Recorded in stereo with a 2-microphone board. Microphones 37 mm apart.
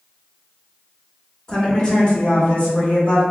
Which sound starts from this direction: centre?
A woman speaking, at 1.5 s.